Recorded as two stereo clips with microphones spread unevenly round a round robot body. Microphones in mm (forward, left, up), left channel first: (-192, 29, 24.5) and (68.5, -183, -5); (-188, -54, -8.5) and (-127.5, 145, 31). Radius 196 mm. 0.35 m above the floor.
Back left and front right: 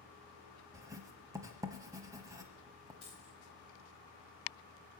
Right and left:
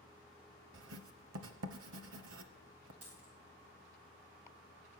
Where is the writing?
40° left, 0.7 m.